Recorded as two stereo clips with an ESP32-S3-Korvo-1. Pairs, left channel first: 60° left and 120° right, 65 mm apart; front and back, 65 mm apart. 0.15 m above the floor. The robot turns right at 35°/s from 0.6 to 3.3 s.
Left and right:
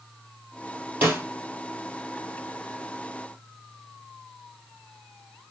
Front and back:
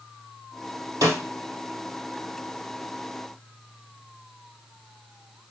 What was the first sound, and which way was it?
A snare drum, straight behind.